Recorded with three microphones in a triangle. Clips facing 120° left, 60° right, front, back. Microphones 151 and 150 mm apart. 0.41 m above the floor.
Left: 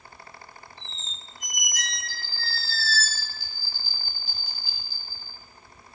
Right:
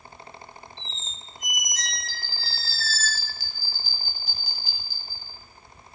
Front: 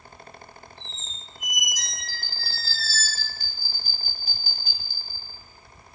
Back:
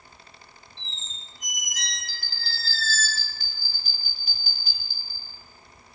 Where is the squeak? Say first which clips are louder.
Right 2 dB, front 3 dB; 70° right, 0.6 m.